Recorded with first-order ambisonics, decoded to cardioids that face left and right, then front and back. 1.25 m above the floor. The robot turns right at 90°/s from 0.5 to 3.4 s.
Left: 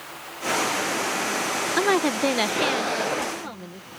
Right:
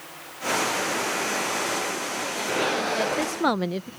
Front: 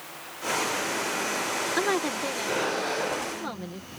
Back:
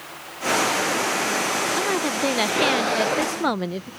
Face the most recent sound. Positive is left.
turn(degrees=-135)